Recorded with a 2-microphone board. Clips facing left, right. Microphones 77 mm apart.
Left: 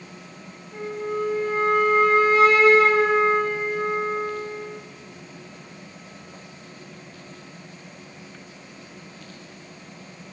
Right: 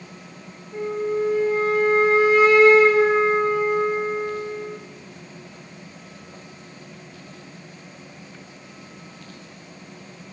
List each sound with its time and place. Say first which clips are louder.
0.7 s a flute: right 4 dB; 20° right (ahead or behind), 1.3 m